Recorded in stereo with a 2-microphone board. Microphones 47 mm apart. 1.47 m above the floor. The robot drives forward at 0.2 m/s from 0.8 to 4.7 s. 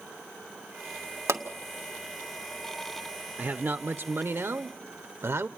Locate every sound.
1.3 s a pop: 65° right (ahead or behind), 1.7 m; by 1.4 s 70° right (ahead or behind), 1.7 m
3.4 s a man speaking: 45° right (ahead or behind), 0.8 m; by 5.5 s 65° right (ahead or behind), 0.6 m